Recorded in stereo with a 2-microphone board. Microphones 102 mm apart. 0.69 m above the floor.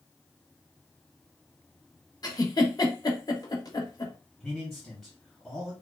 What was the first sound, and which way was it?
A giggle, 40° left (ahead or behind).